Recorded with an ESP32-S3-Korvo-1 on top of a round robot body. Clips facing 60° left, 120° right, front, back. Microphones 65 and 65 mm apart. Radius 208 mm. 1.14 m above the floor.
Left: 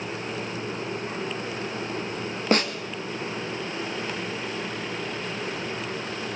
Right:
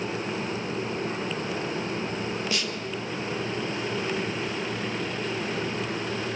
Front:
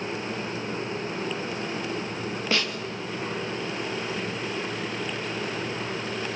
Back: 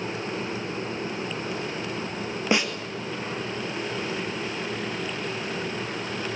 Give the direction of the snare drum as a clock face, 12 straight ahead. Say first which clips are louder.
Left 7 dB, back 4 dB; 8 o'clock.